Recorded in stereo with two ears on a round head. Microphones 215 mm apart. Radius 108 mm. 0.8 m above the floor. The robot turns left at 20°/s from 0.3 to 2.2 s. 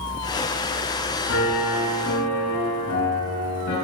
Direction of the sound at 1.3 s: 65° left (ahead or behind).